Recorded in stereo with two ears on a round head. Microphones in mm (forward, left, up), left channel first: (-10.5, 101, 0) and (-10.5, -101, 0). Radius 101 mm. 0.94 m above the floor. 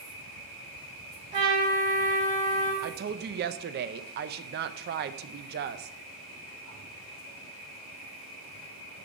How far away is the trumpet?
About 3.5 m.